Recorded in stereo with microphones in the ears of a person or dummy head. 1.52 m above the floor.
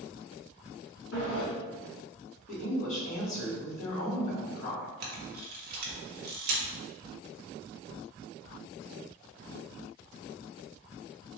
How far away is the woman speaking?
About 1.8 m.